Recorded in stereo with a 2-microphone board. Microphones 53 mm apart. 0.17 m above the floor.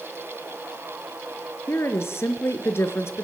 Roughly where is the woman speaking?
Left.